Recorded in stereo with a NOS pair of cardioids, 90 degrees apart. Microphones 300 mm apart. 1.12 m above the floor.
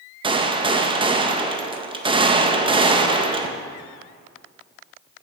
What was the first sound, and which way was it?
A gunshot, 15° right.